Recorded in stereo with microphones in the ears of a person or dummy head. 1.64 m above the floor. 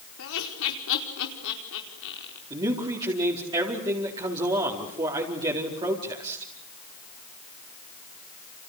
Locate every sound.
0.2 s laughter: 70° left (ahead or behind), 4.5 m
2.5 s a man speaking: 25° right (ahead or behind), 4 m